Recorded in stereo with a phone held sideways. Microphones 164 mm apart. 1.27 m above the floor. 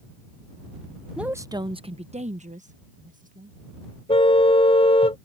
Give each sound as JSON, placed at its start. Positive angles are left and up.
{"t": 1.2, "sound": "a woman speaking", "side_deg": -5}
{"t": 4.1, "sound": "a car horn", "side_deg": 40}